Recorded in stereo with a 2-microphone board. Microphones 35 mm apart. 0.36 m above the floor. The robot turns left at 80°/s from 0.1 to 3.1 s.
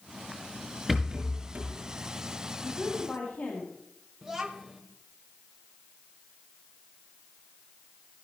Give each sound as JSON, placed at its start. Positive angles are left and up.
{"t": 0.9, "sound": "a rattle", "side_deg": 0, "distance_m": 5.5}
{"t": 2.6, "sound": "a woman speaking", "azimuth_deg": 105, "distance_m": 3.0}
{"t": 4.2, "sound": "a child speaking", "side_deg": -5, "distance_m": 1.4}